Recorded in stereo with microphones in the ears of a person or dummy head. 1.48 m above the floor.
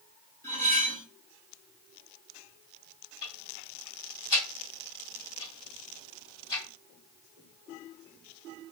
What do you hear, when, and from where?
0.4 s cutlery clinking: 15° left (ahead or behind), 0.8 m
3.2 s ticking: 40° left (ahead or behind), 1.8 m